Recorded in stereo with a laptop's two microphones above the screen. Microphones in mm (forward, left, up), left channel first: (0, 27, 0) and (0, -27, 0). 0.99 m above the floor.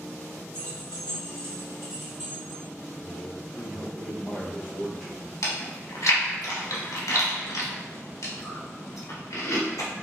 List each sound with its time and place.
0.5 s keys jangling: 60° right (ahead or behind), 1.3 m; by 2.6 s 45° right (ahead or behind), 1.5 m
3.0 s a man speaking: 5° left (ahead or behind), 0.8 m
5.4 s chewing: 90° left, 0.8 m